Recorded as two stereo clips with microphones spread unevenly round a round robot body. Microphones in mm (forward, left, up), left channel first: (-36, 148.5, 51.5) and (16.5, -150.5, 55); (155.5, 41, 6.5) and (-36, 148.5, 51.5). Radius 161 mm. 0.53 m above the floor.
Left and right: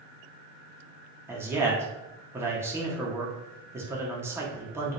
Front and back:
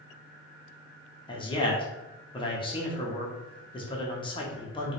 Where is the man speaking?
5° right, 0.9 m.